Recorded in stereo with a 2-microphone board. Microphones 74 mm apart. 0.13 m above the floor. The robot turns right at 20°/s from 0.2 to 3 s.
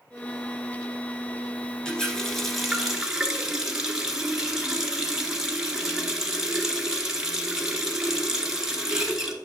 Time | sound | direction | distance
1.9 | a running tap | 10° left (ahead or behind) | 1.1 m